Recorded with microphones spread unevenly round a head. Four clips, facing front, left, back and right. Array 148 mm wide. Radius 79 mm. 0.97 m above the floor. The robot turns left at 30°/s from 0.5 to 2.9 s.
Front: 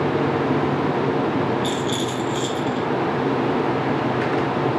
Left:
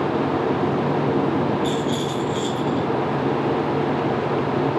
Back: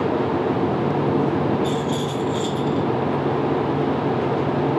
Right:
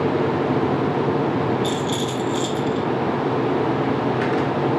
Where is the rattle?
75° right, 2.5 m; by 2.9 s 110° right, 2.5 m.